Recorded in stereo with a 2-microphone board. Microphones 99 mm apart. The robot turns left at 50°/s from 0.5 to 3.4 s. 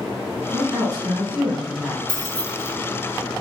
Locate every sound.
0.5 s a woman speaking: 100° right, 1.6 m; by 2.0 s 170° right, 1.6 m
2.1 s keys jangling: 40° left (ahead or behind), 1.8 m; by 2.7 s 15° left (ahead or behind), 1.8 m